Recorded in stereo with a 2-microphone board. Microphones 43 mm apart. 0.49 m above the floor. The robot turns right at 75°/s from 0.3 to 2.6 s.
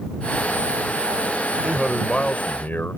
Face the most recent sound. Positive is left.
turn(degrees=60)